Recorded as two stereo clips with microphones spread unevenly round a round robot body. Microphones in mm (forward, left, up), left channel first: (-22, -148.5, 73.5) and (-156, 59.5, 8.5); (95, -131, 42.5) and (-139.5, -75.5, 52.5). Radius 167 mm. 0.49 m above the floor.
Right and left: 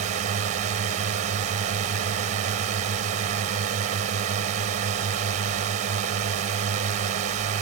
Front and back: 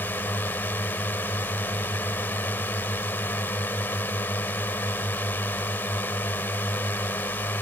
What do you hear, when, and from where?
0.0 s a drone: 70° left